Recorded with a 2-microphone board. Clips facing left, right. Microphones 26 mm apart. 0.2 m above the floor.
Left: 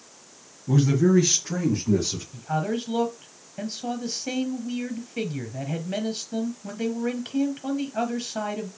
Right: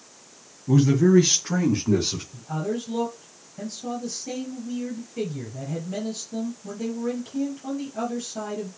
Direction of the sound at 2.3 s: 40° left (ahead or behind).